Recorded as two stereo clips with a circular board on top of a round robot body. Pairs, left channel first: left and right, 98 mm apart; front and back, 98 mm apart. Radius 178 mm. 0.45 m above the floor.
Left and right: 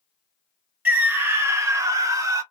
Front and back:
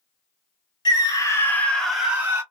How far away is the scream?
About 1.6 m.